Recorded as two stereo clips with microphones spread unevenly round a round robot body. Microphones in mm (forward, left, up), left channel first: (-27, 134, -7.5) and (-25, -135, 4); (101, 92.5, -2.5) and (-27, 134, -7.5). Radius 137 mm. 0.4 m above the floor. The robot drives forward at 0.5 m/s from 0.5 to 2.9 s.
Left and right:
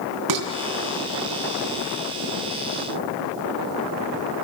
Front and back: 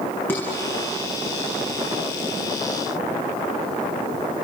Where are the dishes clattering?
100° right, 3 m.